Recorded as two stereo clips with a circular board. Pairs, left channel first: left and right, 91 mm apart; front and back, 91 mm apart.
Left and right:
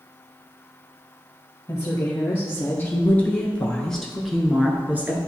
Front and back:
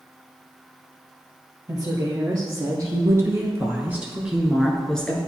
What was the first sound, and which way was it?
A woman speaking, 140° left.